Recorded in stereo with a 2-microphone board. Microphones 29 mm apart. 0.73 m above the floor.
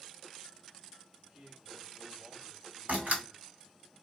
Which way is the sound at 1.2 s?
60° right (ahead or behind).